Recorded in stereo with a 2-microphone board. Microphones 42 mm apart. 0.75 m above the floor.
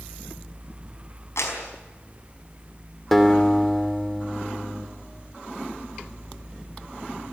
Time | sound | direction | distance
1.4 | a clap | 85° left | 4.5 m
3.1 | a guitar | 5° left (ahead or behind) | 2.5 m